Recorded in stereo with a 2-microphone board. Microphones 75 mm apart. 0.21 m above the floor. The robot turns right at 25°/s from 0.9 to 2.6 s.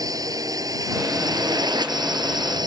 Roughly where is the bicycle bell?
I don't hear a bicycle bell.